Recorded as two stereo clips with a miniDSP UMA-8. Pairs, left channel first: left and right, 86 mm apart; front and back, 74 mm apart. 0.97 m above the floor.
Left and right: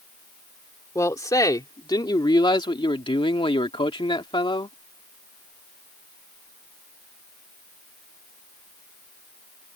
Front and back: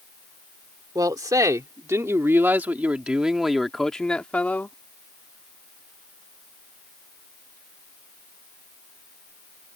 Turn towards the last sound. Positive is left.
turn(degrees=65)